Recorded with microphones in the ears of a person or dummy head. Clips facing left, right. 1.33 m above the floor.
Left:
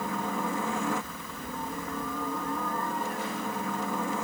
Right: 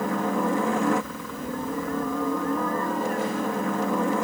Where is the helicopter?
50° right (ahead or behind).